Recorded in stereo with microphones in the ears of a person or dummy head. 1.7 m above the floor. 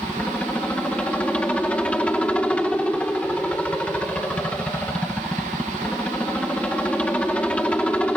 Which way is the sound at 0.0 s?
10° left (ahead or behind).